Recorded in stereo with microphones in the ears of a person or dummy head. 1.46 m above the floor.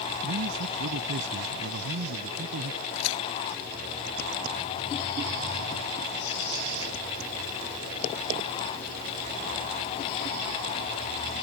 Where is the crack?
90° left.